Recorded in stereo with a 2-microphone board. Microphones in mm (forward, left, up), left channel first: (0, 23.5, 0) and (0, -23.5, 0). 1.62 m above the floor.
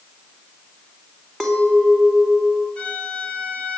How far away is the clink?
About 2.5 m.